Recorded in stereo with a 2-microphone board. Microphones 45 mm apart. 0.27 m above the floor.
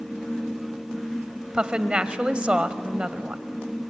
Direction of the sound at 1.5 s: 25° right (ahead or behind).